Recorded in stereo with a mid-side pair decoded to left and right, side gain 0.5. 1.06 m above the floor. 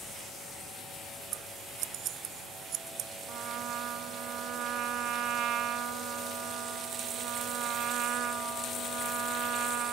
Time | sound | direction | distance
1.3 | scissors | 65° right | ?
3.3 | a trumpet | 65° right | ?